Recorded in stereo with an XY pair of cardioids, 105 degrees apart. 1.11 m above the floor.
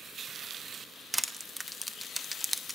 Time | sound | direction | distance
1.1 | crushing | 10° right | 0.5 m